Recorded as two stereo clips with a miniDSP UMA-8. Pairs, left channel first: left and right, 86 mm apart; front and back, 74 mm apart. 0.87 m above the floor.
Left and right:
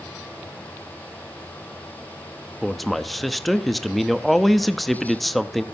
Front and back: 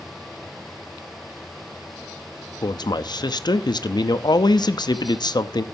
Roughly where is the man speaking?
Ahead.